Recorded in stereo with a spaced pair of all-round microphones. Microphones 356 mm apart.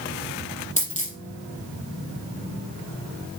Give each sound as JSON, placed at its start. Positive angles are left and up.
{"t": 0.8, "sound": "a dropped coin", "side_deg": 20, "distance_m": 4.0}